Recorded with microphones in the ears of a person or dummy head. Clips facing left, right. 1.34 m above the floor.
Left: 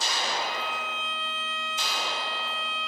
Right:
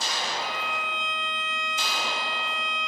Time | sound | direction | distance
0.4 | a violin | 50° right (ahead or behind) | 0.6 m